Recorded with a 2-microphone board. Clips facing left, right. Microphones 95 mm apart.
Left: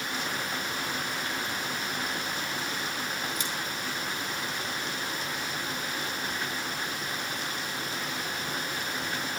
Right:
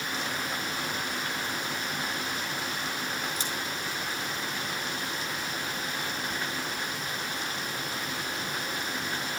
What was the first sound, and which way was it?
Scissors, 35° right (ahead or behind).